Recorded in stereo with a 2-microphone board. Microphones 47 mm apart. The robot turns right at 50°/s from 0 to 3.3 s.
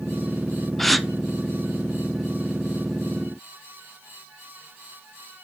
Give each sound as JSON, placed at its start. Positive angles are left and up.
{"t": 0.8, "sound": "a gasp", "side_deg": 5, "distance_m": 0.8}